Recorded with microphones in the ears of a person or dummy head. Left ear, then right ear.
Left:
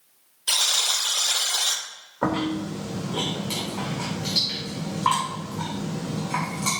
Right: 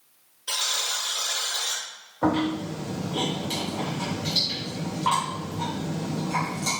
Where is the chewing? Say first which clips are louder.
Right 1 dB; 45° left (ahead or behind), 3 m.